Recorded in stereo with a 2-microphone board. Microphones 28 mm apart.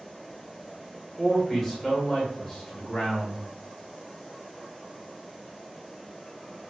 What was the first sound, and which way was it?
A man speaking, 5° right (ahead or behind).